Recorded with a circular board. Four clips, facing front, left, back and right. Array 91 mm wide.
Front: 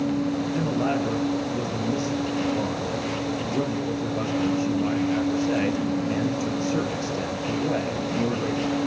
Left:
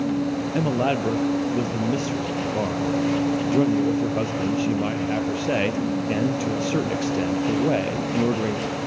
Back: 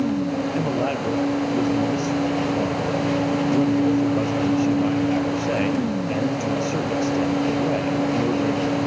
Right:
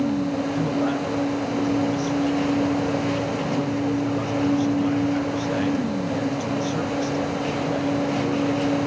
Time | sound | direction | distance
0.6 | a man speaking | 110° left | 3 m